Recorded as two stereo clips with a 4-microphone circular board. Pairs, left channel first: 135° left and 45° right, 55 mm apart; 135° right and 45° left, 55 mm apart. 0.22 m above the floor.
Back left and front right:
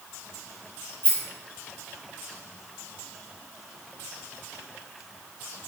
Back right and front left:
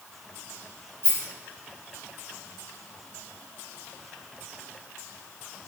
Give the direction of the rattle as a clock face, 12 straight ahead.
6 o'clock.